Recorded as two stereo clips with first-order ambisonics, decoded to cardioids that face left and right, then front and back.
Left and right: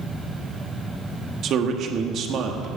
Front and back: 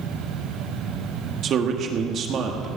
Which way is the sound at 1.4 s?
130° right.